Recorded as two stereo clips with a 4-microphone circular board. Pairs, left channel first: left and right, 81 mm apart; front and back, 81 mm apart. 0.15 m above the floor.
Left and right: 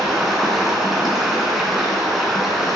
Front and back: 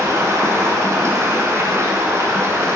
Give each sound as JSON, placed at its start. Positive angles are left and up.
{"t": 0.0, "sound": "running water", "azimuth_deg": -175, "distance_m": 1.7}